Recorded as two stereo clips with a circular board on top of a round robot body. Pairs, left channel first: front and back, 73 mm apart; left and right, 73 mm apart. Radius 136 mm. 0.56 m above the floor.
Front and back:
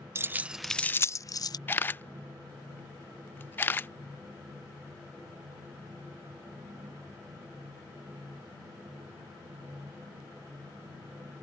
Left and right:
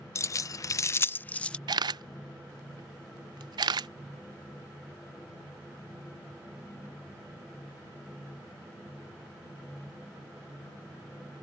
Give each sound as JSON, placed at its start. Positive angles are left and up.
{"t": 0.1, "sound": "keys jangling", "azimuth_deg": 130}
{"t": 1.7, "sound": "a camera shutter", "azimuth_deg": -65}